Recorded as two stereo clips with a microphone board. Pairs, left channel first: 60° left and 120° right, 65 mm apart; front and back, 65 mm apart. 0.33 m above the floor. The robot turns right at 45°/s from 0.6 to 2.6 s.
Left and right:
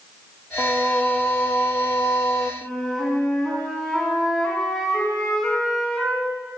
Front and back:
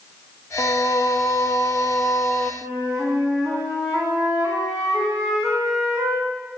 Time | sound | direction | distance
0.6 | singing | 20° right | 0.6 m
2.6 | a flute | 140° left | 2 m